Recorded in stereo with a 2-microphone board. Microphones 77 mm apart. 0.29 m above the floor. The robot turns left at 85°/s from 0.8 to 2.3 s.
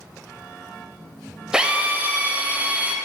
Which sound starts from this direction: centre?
A drill, at 1.5 s.